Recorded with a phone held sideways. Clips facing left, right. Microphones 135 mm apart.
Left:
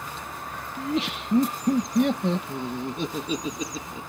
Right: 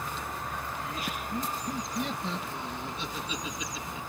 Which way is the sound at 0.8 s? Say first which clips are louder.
Left 8 dB; 85° left.